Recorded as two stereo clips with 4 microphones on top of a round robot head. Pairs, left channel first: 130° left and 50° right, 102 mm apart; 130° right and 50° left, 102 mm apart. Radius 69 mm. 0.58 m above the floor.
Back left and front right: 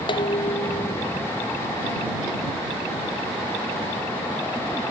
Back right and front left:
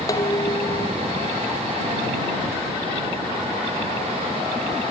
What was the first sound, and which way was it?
Dishes clattering, 170° left.